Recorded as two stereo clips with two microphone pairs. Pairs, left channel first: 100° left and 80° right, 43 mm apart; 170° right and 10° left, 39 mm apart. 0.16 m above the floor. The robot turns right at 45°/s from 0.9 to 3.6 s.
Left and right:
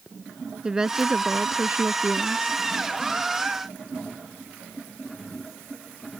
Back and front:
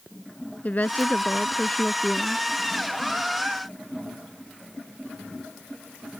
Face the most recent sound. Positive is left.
turn(degrees=-25)